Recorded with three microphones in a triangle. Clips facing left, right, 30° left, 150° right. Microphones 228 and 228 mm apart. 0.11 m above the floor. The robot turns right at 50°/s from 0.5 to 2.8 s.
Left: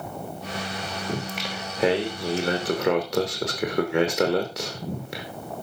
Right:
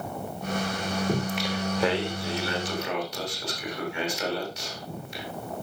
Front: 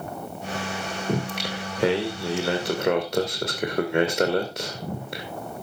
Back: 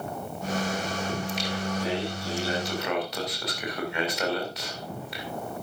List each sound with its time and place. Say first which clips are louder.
1.1 s singing: right 2 dB, front 3 dB; 15° right, 3 m; by 5.2 s 70° left, 3 m